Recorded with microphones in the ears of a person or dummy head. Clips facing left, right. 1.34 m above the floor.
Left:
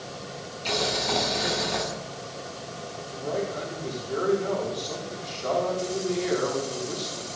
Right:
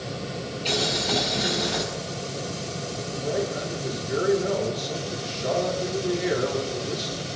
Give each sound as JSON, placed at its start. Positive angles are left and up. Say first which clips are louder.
{"t": 0.7, "sound": "boiling", "louder": "even", "side_deg": 0, "distance_m": 6.0}
{"t": 3.1, "sound": "a man speaking", "louder": "right 2 dB", "side_deg": -10, "distance_m": 4.5}